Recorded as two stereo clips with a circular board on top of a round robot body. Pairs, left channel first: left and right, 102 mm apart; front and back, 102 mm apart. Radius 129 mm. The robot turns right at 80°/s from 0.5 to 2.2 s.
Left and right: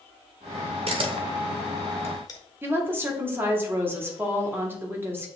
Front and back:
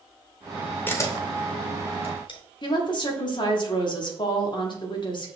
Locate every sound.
0.9 s a camera shutter: 70° right, 0.9 m; by 2.4 s 35° left, 0.9 m
2.6 s a woman speaking: 25° right, 1.3 m